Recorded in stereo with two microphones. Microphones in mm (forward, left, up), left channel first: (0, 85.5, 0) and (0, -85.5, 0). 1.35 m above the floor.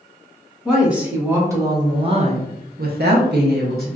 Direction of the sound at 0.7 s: 5° right (ahead or behind).